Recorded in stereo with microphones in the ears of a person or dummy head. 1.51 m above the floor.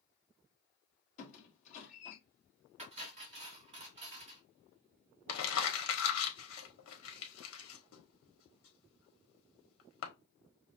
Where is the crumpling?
80° left, 1.2 m.